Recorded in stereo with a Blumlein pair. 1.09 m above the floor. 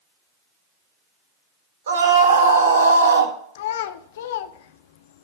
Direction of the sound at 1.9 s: 60° right.